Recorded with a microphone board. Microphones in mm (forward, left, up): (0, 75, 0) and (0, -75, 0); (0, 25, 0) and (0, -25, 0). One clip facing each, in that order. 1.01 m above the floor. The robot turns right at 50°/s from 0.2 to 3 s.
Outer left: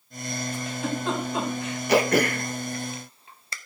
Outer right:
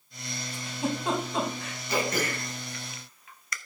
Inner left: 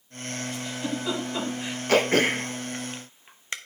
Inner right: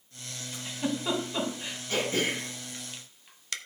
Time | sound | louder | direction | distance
0.5 | a giggle | outer right 1 dB, inner right 2 dB | 35° right (ahead or behind) | 3 m
1.9 | throat clearing | outer left 8 dB, inner left 8 dB | 75° left (ahead or behind) | 0.8 m